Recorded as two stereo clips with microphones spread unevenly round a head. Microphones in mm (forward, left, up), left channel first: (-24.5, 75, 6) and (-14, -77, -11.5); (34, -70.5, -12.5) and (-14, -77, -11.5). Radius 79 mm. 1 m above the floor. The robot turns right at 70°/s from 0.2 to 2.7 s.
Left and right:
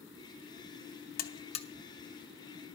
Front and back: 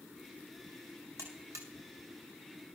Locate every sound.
1.2 s a buzzer: 120° left, 1.0 m; by 1.7 s 155° left, 1.0 m